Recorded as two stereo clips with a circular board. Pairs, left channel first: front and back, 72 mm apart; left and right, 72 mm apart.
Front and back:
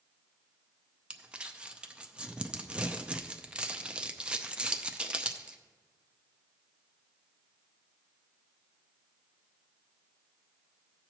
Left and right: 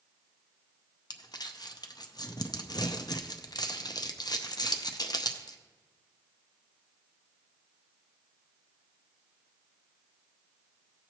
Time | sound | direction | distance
1.1 | crumpling | 105° left | 0.5 m